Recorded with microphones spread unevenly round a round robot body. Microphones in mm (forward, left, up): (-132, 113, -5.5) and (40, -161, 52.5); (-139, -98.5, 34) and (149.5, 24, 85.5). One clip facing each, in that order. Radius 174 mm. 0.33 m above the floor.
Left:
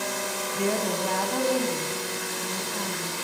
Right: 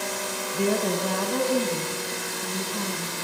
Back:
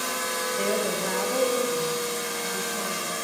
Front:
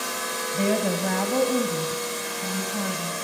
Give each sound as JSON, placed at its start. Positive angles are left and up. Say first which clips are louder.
{"t": 0.5, "sound": "a woman speaking", "louder": "right 3 dB, front 4 dB", "azimuth_deg": 20, "distance_m": 2.5}